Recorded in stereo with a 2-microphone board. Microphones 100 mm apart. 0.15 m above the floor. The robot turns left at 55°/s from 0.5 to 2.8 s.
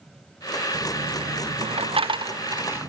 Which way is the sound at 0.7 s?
45° right (ahead or behind).